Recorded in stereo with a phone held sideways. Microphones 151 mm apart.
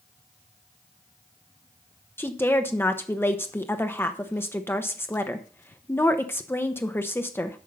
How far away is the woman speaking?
About 0.8 m.